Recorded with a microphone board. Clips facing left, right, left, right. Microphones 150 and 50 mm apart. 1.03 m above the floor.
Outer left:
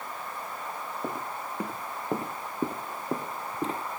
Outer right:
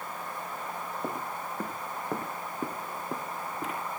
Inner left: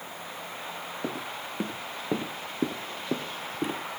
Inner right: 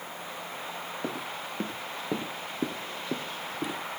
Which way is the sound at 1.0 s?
Centre (ahead or behind).